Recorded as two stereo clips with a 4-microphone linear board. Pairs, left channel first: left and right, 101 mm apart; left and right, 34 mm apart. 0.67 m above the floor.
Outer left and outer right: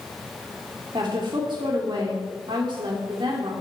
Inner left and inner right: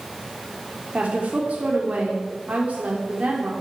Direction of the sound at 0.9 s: 50° right (ahead or behind).